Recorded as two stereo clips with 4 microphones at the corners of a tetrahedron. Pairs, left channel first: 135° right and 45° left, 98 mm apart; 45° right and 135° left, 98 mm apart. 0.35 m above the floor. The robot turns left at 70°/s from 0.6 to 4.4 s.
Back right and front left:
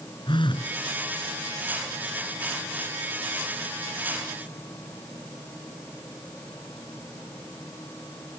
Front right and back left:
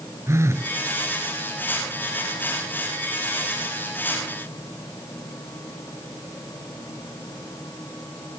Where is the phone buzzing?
165° right; by 0.7 s 170° right.